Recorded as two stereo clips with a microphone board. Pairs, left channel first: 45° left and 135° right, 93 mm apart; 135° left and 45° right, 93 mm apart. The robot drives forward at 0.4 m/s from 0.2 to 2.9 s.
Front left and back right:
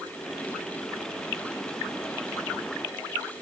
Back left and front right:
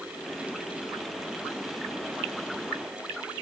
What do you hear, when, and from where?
Only background noise.